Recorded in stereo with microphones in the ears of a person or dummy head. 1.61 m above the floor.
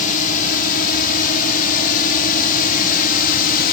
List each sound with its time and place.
0.0 s a drone: 50° left (ahead or behind)